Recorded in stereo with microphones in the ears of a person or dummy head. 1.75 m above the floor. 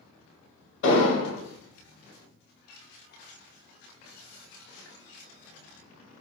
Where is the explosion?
60° left (ahead or behind), 1.0 m.